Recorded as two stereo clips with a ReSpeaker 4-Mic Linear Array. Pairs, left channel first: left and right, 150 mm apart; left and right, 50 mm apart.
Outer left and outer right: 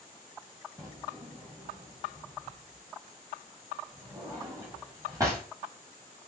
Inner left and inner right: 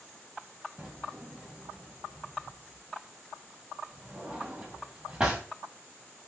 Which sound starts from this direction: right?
A drawer, at 0.8 s.